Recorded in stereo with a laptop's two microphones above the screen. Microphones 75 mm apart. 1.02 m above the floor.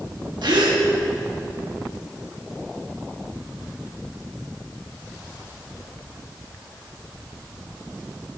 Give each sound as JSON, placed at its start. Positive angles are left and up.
{"t": 0.4, "sound": "a gasp", "side_deg": -70, "distance_m": 1.3}